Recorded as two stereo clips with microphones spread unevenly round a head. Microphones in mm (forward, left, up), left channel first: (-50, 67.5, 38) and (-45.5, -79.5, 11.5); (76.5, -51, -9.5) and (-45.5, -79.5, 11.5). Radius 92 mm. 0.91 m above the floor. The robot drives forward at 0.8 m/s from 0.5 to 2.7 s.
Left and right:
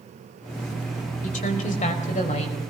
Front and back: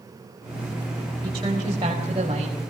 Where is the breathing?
I don't hear breathing.